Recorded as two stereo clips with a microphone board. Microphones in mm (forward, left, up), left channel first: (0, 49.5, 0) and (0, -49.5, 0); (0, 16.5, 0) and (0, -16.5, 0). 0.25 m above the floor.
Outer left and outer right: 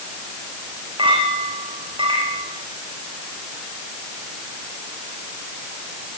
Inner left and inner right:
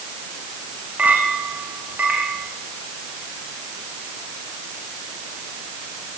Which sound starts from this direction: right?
A clink, at 1.0 s.